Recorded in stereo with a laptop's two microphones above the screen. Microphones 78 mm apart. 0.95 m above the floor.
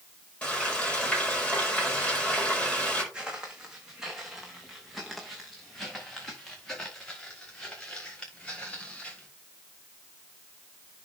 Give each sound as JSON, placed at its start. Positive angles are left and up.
{"t": 0.4, "sound": "frying", "side_deg": 15, "distance_m": 5.5}
{"t": 3.1, "sound": "footsteps", "side_deg": -10, "distance_m": 3.0}